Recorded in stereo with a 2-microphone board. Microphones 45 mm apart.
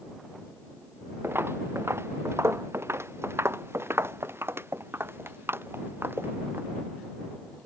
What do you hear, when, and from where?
1.2 s footsteps: 60° right (ahead or behind)